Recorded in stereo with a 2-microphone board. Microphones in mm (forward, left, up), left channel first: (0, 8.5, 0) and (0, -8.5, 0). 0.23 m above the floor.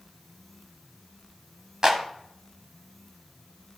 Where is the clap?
30° right (ahead or behind), 1.1 m.